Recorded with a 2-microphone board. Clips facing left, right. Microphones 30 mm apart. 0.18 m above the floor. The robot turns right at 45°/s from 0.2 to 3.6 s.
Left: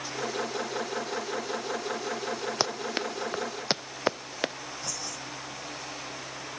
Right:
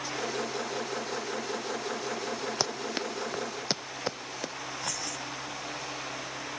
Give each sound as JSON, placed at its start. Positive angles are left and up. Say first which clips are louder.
{"t": 2.6, "sound": "running footsteps", "louder": "left 2 dB", "side_deg": 15}
{"t": 4.8, "sound": "keys jangling", "louder": "right 2 dB", "side_deg": -60}